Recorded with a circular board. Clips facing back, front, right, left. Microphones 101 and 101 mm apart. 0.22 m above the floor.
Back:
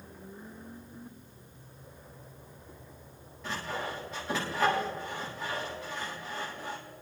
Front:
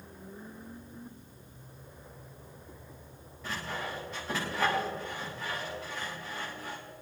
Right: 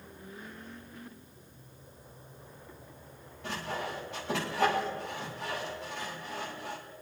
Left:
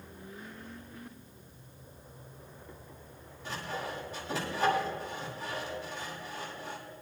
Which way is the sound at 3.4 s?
90° right.